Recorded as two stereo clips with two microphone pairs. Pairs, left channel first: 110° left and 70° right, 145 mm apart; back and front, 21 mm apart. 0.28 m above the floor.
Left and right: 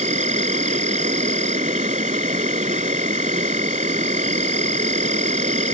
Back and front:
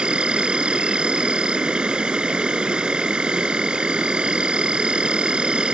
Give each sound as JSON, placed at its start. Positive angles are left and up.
{"t": 0.0, "sound": "an insect", "azimuth_deg": -35}